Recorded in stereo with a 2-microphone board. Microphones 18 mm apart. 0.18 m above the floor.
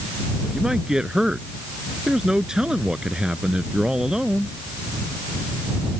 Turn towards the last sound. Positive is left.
turn(degrees=-45)  # may be behind; listen again after turning